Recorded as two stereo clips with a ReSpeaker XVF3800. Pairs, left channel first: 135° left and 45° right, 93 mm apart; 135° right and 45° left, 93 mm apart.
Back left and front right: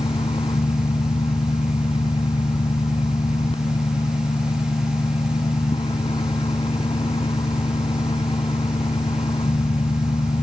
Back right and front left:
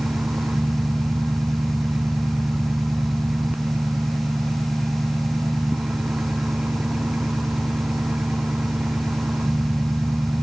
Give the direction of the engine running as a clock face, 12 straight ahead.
8 o'clock.